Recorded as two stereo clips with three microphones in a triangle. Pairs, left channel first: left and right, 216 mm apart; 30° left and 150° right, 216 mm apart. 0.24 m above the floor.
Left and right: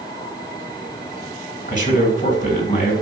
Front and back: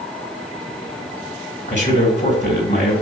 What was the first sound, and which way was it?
A man speaking, 45° left.